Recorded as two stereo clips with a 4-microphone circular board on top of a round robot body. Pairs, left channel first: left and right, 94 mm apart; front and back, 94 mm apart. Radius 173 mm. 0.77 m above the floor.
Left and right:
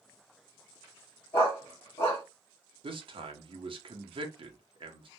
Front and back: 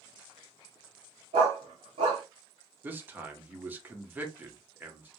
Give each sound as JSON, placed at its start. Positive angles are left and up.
{"t": 1.3, "sound": "a dog barking", "azimuth_deg": 155, "distance_m": 0.6}
{"t": 2.8, "sound": "a man speaking", "azimuth_deg": -110, "distance_m": 0.8}